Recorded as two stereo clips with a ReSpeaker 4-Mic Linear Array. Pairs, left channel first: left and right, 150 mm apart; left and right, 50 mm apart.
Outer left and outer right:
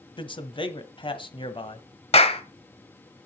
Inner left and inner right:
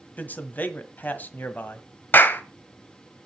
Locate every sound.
0.2 s a man speaking: 35° left (ahead or behind), 1.3 m
2.1 s a clap: 40° left (ahead or behind), 1.1 m